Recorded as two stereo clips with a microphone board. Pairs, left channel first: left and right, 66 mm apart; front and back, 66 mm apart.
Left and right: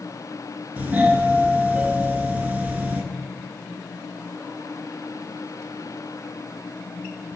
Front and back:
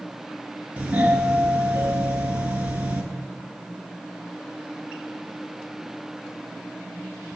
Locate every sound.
0.8 s a doorbell: 130° right, 2 m